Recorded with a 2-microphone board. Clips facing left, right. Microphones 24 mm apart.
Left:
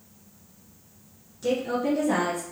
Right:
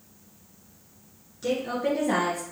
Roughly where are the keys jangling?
I don't hear keys jangling.